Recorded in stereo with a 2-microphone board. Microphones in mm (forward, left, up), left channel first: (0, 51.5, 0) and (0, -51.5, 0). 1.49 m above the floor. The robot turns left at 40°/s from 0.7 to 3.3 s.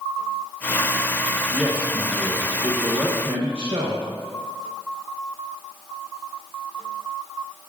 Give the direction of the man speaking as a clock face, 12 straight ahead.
12 o'clock.